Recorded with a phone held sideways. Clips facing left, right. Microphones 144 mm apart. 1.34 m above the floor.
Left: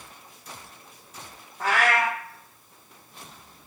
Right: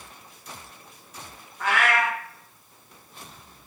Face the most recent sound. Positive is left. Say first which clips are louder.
# even
turn(degrees=35)  # may be behind; listen again after turning